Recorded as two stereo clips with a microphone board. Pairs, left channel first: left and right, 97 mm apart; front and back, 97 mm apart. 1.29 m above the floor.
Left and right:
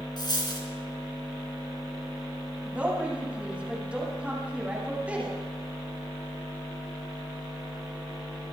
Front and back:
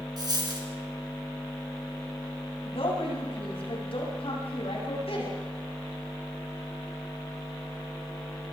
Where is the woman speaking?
10° right, 8.5 m.